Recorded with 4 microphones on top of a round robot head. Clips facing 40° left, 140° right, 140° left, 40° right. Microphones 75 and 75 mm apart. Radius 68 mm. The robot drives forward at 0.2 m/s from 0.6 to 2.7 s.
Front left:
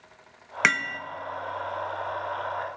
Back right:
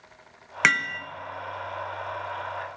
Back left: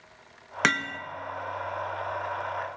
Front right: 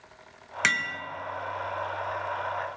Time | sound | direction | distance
0.6 | hammering | 125° left | 0.8 m